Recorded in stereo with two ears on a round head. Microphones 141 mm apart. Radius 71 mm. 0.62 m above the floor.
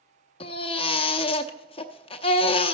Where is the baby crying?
35° left (ahead or behind), 0.7 m.